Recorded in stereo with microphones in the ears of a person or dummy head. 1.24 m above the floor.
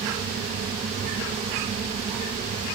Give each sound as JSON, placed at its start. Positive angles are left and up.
{"t": 0.0, "sound": "a fan", "side_deg": -40, "distance_m": 1.4}